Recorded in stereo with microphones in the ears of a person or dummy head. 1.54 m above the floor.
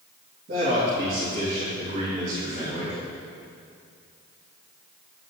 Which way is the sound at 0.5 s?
55° right (ahead or behind).